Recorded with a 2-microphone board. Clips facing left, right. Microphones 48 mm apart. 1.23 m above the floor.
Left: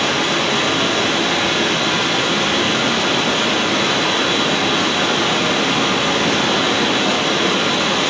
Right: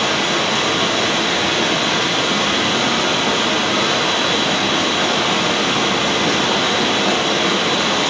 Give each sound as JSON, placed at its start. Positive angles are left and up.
{"t": 0.0, "sound": "running water", "side_deg": 10, "distance_m": 7.5}